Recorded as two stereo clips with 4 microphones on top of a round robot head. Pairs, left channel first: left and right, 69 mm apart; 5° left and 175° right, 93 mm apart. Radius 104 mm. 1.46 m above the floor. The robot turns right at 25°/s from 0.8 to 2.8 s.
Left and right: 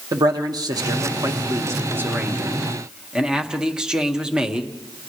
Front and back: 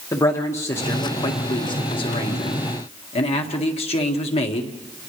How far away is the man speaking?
About 1.8 m.